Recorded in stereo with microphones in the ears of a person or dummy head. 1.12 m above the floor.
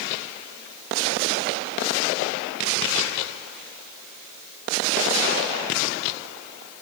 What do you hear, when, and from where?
Only background noise.